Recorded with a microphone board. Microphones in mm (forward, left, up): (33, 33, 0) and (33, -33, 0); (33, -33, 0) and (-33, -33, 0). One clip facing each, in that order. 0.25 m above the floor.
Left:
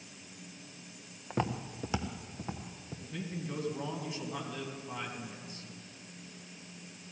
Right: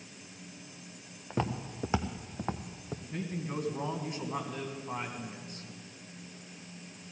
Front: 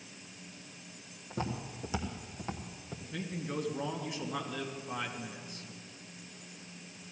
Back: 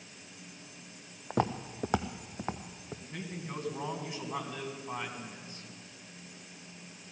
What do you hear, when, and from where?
1.3 s footsteps: 175° left, 0.9 m; by 3.0 s 105° right, 1.2 m
3.1 s a man speaking: 130° right, 2.5 m